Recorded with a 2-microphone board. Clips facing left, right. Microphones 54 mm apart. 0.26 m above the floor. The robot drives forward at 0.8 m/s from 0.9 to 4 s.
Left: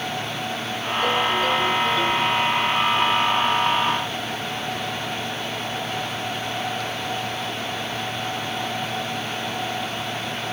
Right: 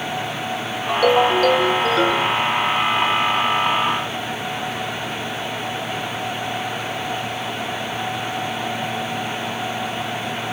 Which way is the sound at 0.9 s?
70° right (ahead or behind).